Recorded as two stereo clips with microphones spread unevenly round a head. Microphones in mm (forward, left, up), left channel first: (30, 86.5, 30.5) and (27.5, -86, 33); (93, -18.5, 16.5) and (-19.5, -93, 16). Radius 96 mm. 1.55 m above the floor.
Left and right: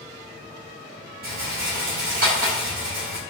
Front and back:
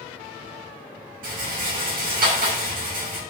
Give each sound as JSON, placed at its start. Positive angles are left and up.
{"t": 1.2, "sound": "a rattle", "azimuth_deg": -135, "distance_m": 6.0}